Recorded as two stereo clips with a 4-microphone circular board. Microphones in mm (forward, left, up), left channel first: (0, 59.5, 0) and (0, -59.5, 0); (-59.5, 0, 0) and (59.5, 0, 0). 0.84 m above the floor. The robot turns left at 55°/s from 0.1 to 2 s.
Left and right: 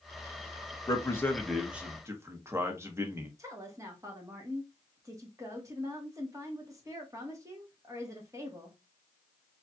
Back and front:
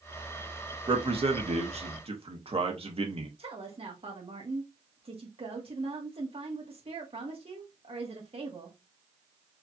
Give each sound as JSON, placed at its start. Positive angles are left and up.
{"t": 0.9, "sound": "a man speaking", "azimuth_deg": 40, "distance_m": 1.0}
{"t": 3.4, "sound": "a woman speaking", "azimuth_deg": -30, "distance_m": 1.4}